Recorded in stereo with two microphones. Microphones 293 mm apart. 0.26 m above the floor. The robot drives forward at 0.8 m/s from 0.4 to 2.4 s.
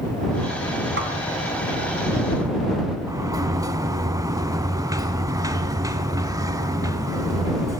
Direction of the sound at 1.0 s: 45° right (ahead or behind).